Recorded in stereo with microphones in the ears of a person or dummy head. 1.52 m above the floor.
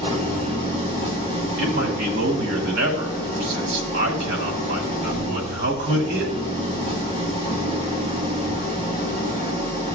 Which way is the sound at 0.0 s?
25° right (ahead or behind).